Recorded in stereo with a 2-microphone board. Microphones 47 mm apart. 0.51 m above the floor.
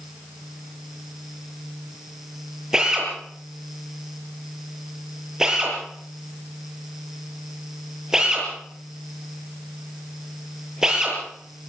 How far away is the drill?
About 8 m.